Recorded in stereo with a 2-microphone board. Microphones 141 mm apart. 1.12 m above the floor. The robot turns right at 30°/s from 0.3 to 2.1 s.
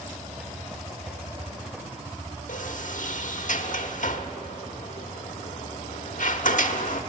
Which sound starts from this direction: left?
A sliding door, at 2.5 s.